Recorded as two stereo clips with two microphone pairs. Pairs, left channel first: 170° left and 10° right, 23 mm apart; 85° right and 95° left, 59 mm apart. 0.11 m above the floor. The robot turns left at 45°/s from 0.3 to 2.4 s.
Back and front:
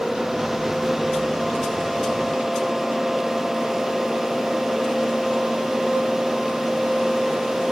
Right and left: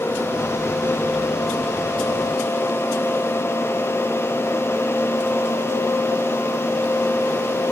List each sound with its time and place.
Only background noise.